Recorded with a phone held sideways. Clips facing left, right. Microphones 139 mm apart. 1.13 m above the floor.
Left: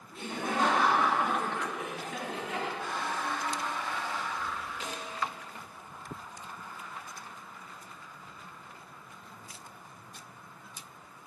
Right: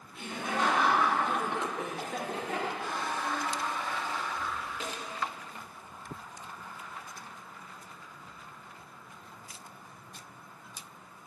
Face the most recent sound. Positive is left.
turn(degrees=-65)  # may be behind; listen again after turning